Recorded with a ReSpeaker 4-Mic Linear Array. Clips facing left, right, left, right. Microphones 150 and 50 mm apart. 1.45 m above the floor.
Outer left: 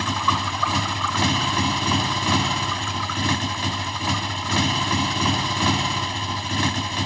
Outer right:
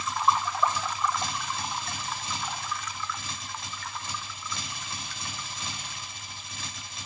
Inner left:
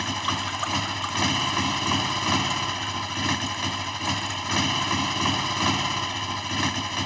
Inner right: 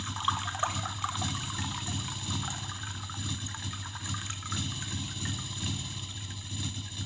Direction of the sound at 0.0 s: 80° left.